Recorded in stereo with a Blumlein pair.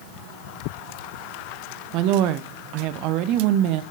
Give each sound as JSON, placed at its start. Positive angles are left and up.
{"t": 1.9, "sound": "a woman speaking", "azimuth_deg": -40, "distance_m": 0.6}